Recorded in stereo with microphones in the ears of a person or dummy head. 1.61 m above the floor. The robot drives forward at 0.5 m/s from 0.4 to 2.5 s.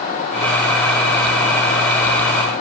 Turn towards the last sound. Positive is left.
No sound to turn to.